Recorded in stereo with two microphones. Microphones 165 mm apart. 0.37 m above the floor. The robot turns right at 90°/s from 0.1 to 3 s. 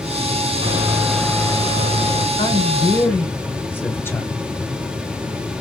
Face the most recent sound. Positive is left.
turn(degrees=155)